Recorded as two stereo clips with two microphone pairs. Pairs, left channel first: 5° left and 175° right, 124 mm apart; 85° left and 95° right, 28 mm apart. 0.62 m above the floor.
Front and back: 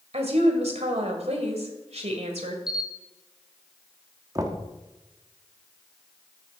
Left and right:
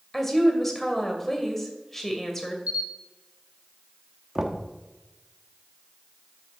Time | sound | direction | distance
0.1 | a woman speaking | 165° left | 2.5 m
2.7 | a camera shutter | 90° right | 0.8 m
4.3 | knocking | 155° right | 1.0 m